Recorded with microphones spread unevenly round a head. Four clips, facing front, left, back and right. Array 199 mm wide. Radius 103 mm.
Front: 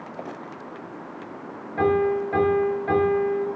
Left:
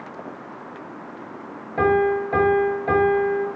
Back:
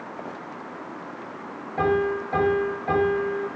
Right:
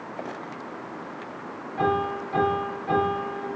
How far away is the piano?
About 8.5 m.